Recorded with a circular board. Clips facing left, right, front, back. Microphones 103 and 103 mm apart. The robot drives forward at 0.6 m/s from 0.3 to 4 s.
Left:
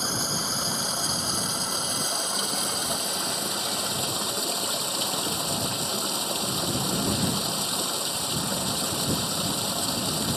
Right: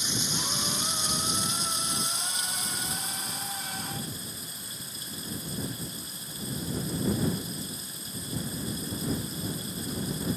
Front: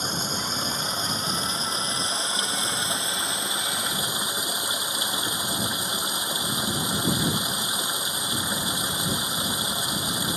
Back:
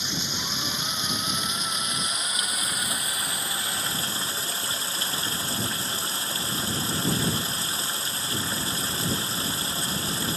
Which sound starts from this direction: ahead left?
Running water, at 0.0 s.